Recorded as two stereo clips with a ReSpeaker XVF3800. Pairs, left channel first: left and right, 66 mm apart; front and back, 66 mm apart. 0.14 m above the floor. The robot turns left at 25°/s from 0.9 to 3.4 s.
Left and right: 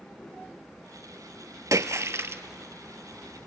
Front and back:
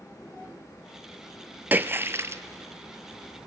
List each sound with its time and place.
1.7 s a splash: 120° right, 0.7 m; by 2.4 s 135° right, 0.7 m